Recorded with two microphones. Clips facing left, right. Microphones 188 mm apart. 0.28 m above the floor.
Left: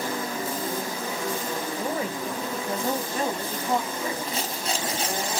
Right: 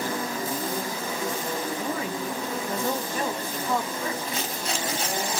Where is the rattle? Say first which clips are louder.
Left 1 dB; 35° left (ahead or behind), 1.1 m.